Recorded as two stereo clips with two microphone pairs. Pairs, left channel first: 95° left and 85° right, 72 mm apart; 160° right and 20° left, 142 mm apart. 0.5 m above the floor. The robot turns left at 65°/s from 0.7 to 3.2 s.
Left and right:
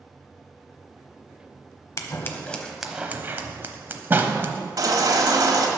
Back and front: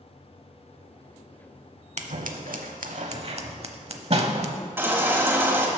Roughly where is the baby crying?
Ahead right.